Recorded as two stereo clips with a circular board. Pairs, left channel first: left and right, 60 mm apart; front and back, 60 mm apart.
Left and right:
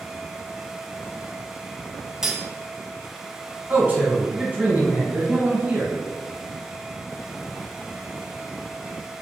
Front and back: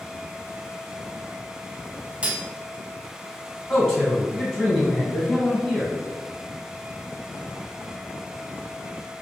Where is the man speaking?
80° right, 1.5 m.